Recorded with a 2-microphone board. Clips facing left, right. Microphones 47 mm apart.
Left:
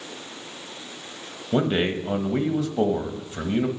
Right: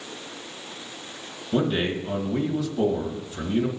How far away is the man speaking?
About 1.1 m.